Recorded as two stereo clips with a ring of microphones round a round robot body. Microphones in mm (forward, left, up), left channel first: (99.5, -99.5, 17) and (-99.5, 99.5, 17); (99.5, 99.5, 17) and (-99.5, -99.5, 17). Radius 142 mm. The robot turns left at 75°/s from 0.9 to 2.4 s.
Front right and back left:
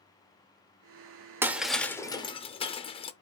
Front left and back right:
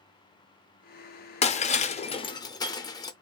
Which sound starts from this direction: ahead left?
Breaking glass, at 1.4 s.